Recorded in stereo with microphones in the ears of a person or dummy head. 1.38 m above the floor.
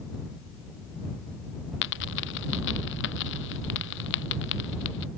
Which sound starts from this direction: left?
A dropped coin, at 1.8 s.